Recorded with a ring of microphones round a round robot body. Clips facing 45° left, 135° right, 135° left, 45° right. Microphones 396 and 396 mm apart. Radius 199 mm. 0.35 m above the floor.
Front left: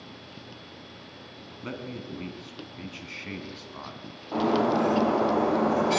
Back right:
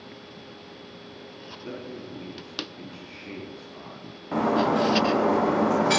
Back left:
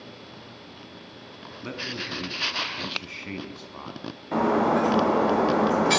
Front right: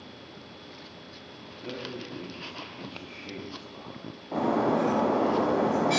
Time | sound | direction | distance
1.6 | a man speaking | 90° left | 3 m
4.3 | breaking glass | 175° right | 6 m